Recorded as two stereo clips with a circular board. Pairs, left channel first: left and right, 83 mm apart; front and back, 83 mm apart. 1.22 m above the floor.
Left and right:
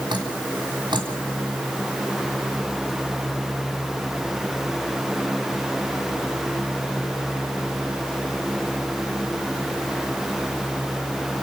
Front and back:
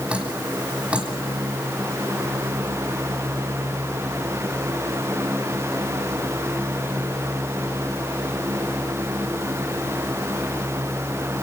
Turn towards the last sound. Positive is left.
turn(degrees=-105)